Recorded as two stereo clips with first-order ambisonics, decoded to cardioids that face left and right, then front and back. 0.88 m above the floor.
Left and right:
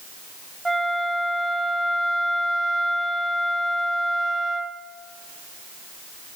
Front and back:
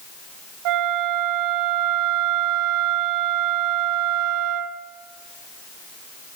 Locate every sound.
0.7 s a flute: 175° right, 1.0 m